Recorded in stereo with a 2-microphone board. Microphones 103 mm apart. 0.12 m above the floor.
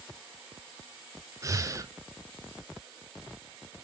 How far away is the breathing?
About 0.7 m.